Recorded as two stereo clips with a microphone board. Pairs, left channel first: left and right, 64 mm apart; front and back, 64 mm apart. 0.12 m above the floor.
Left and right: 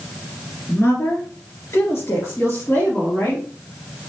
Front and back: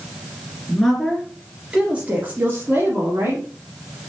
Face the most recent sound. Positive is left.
turn(degrees=145)